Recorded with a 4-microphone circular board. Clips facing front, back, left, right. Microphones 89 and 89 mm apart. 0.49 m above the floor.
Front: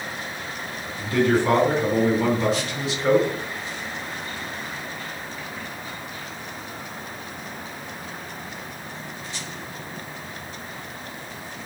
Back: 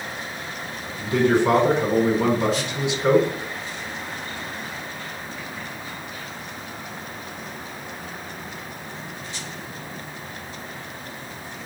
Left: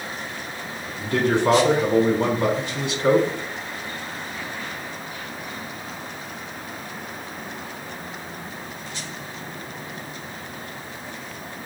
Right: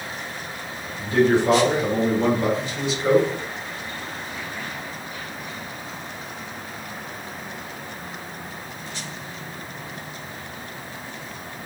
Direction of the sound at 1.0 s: 110° left.